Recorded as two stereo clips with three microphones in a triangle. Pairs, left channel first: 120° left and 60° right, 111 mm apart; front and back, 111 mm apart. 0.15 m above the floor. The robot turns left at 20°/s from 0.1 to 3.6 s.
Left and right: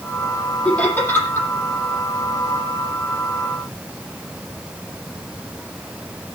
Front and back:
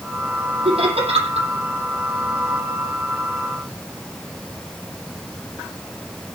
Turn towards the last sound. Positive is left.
turn(degrees=140)